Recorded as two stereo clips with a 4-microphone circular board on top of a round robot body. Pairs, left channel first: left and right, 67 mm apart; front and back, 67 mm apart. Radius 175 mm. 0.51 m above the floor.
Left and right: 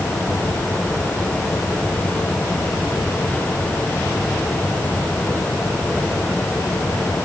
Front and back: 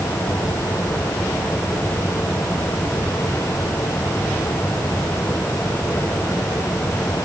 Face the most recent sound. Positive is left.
No sound to turn to.